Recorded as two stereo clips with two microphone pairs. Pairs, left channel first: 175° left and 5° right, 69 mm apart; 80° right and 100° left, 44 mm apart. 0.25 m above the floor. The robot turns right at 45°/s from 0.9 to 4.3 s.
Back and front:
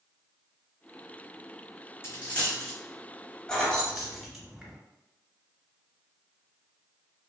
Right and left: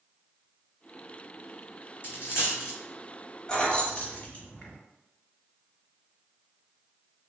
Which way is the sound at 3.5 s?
125° right.